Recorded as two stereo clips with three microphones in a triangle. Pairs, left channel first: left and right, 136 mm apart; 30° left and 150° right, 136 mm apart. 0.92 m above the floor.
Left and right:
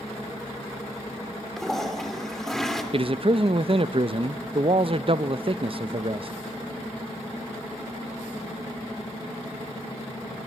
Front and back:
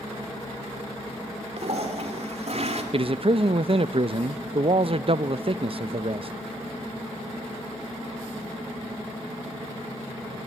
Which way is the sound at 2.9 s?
120° right.